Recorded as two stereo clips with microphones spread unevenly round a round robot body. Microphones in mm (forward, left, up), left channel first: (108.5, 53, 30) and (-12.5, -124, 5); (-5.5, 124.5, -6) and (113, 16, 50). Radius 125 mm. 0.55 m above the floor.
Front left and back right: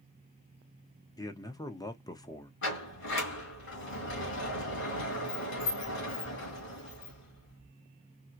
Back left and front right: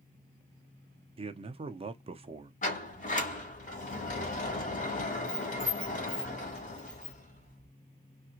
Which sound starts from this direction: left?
A sliding door, at 2.6 s.